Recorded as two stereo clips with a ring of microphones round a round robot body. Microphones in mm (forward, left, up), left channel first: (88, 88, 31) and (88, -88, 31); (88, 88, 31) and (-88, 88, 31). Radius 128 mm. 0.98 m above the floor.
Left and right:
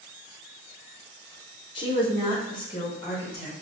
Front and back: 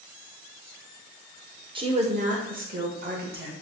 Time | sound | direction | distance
1.8 | a woman speaking | 135° left | 0.8 m